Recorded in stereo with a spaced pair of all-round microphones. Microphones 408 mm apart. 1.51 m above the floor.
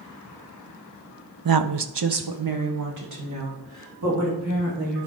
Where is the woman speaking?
55° right (ahead or behind), 0.6 m; by 5.1 s 35° right (ahead or behind), 3.5 m.